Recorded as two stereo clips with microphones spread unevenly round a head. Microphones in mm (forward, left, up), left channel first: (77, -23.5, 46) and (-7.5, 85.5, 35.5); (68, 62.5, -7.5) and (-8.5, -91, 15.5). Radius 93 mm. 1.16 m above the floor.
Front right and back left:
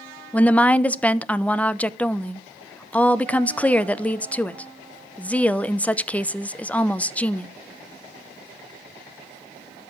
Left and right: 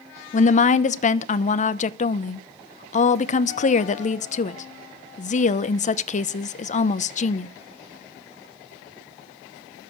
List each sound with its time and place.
0.3 s a woman speaking: 30° left, 0.9 m